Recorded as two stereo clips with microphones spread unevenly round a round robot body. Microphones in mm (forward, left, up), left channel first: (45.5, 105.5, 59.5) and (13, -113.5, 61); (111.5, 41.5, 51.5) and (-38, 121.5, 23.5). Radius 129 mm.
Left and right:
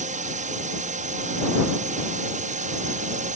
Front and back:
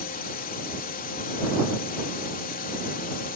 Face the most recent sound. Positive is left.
turn(degrees=-55)